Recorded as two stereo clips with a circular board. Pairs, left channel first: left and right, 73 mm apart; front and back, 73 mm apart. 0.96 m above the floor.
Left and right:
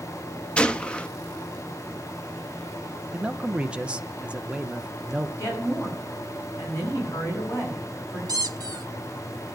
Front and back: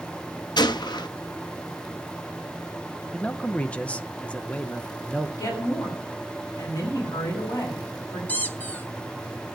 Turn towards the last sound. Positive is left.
turn(degrees=-65)